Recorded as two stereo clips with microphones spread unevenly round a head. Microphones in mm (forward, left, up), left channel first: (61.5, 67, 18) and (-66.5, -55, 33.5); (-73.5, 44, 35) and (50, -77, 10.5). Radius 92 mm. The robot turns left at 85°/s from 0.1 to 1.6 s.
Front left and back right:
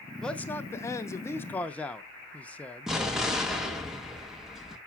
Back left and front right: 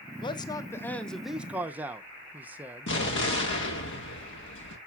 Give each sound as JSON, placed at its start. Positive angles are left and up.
{"t": 0.2, "sound": "a man speaking", "azimuth_deg": 110, "distance_m": 0.7}
{"t": 2.9, "sound": "an explosion", "azimuth_deg": 135, "distance_m": 1.6}